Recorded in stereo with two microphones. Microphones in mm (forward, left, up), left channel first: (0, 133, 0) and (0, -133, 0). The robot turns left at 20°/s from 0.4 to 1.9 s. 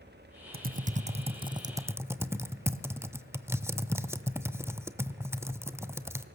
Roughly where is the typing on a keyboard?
Right.